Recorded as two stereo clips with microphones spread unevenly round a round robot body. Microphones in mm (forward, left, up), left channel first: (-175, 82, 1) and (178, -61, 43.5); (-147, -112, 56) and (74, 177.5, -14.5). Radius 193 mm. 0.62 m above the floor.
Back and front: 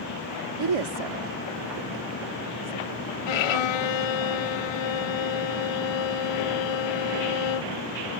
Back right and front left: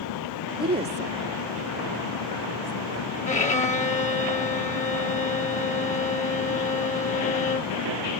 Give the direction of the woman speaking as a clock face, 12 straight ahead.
12 o'clock.